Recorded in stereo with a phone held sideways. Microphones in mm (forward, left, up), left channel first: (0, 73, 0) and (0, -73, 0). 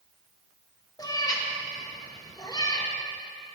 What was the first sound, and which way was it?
A cat meowing, 25° left (ahead or behind).